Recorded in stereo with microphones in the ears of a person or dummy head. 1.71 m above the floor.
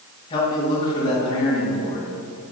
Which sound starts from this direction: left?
A man speaking, at 0.3 s.